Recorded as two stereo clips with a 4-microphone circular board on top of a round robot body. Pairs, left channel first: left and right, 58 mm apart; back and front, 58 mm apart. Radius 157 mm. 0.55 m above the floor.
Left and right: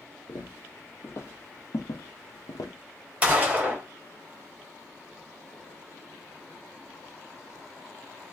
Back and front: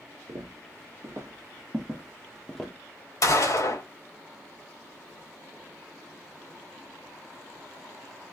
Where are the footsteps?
30° left, 1.4 m; by 2.7 s 100° left, 1.0 m.